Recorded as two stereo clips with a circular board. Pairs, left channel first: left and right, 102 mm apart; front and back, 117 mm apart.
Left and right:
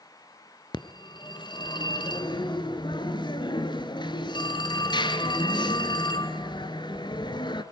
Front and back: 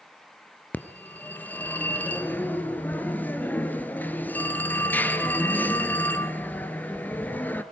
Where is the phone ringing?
70° left, 1.5 m.